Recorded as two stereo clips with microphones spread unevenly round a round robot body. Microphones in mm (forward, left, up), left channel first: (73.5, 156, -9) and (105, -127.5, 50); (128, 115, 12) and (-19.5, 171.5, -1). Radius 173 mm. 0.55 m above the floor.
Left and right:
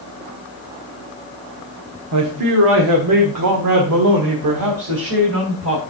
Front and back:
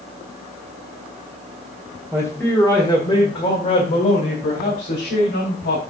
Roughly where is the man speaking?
Behind right.